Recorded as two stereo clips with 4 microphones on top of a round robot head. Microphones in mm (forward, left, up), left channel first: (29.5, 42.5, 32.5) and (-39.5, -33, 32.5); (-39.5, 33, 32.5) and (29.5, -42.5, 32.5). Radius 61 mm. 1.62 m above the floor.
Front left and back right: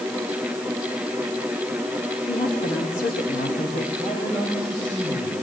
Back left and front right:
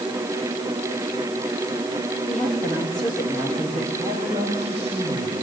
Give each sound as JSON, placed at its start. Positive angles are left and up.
{"t": 2.3, "sound": "a woman speaking", "azimuth_deg": 45, "distance_m": 3.5}
{"t": 4.0, "sound": "a man speaking", "azimuth_deg": -10, "distance_m": 8.5}